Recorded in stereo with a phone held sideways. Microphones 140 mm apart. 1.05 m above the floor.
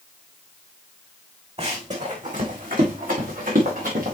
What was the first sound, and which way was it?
Running footsteps, 45° right (ahead or behind).